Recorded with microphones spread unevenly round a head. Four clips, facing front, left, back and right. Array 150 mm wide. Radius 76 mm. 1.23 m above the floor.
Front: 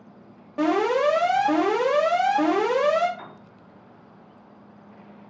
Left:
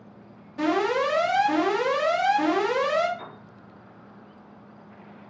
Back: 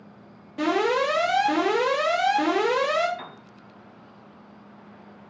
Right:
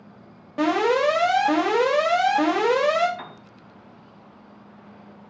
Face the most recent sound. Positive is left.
turn(degrees=-115)